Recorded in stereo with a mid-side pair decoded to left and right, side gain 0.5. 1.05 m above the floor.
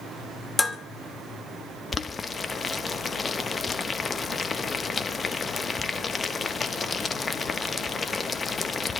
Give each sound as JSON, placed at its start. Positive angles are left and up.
{"t": 0.6, "sound": "dishes clattering", "azimuth_deg": 15, "distance_m": 1.5}
{"t": 1.9, "sound": "boiling", "azimuth_deg": 30, "distance_m": 1.0}